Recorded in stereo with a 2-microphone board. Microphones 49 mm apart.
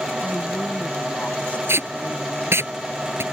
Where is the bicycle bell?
No bicycle bell in this recording.